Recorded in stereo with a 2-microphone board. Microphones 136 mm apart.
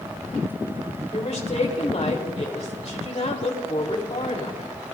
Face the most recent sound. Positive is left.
turn(degrees=55)  # may be behind; listen again after turning